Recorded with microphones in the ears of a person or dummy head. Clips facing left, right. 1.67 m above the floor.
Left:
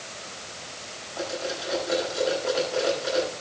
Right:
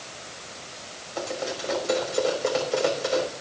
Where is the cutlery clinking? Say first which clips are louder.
Right 1 dB; 55° right (ahead or behind), 5.5 m.